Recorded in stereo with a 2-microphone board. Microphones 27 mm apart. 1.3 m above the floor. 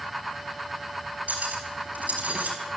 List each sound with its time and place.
1.3 s cutlery clinking: 70° right (ahead or behind), 5 m